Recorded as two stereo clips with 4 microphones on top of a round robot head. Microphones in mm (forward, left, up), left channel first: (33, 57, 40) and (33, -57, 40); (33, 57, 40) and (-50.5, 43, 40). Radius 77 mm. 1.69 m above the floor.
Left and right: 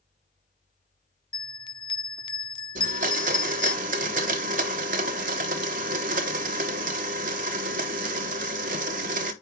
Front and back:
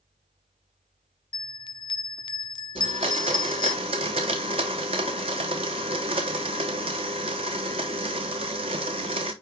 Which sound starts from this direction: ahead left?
A bell, at 1.3 s.